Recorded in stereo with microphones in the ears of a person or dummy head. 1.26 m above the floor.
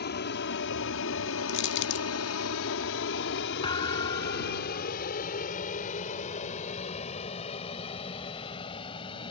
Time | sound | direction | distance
0.0 | an aircraft | 55° left (ahead or behind) | ?
1.5 | crushing | 60° left (ahead or behind) | ?
3.6 | a thud | 30° left (ahead or behind) | ?